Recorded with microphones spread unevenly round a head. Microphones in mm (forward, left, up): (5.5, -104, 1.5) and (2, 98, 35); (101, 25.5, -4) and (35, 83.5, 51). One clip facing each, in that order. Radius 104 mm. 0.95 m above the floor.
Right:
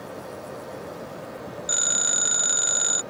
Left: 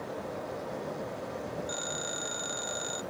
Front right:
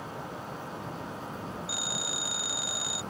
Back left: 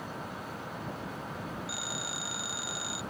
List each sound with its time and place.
1.7 s a phone ringing: 85° right